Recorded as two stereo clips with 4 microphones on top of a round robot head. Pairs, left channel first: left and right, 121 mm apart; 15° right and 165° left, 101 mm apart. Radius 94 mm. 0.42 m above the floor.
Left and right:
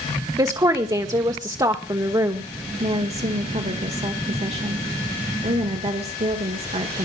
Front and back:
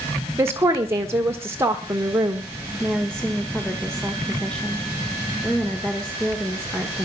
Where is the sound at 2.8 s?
95° right, 1.8 m.